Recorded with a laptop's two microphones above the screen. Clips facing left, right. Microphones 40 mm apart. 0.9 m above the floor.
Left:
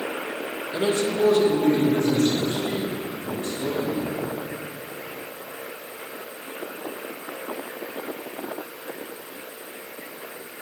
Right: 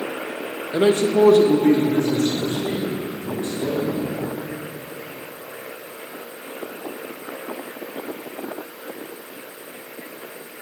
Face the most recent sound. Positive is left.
turn(degrees=-55)  # may be behind; listen again after turning